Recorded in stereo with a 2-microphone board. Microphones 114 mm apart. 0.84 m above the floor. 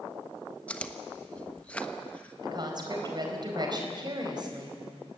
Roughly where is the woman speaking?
Right.